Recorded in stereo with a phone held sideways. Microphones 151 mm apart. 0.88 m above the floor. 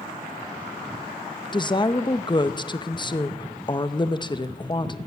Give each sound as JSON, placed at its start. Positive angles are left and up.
{"t": 1.5, "sound": "a woman speaking", "side_deg": 30, "distance_m": 0.6}